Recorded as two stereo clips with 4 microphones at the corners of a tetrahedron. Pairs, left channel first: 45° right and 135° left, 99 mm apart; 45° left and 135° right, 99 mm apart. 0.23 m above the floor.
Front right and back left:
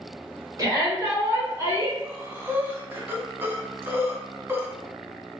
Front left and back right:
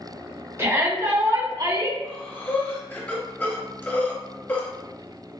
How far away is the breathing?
About 1.0 m.